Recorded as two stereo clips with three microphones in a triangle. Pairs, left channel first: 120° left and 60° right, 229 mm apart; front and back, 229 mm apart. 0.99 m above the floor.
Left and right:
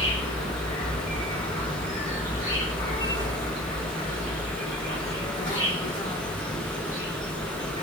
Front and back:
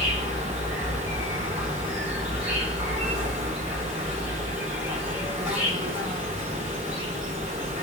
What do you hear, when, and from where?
0.0 s an insect: 120° left, 1.3 m